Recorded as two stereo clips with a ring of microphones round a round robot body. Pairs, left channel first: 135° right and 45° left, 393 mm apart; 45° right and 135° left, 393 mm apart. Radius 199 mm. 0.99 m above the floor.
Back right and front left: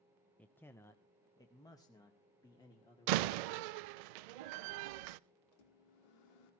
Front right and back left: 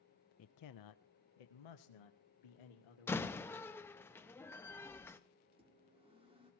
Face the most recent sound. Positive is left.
turn(degrees=-145)